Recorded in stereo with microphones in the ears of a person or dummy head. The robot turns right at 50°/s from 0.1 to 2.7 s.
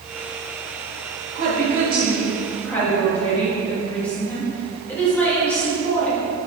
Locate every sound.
1.4 s a woman speaking: 60° right, 3 m; by 6.2 s 10° left, 3 m